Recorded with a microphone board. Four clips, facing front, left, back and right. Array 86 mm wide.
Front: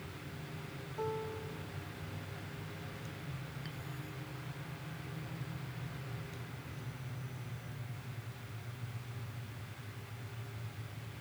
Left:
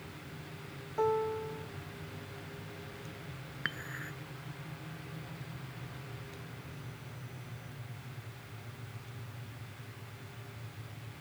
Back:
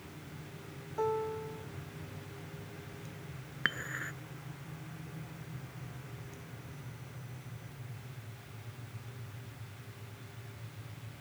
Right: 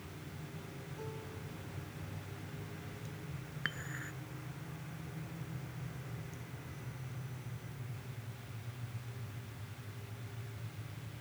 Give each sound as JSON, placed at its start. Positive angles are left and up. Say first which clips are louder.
{"t": 1.0, "sound": "a piano", "louder": "left 19 dB, back 6 dB", "azimuth_deg": 110}
{"t": 3.6, "sound": "dishes clattering", "louder": "left 2 dB, back 9 dB", "azimuth_deg": 175}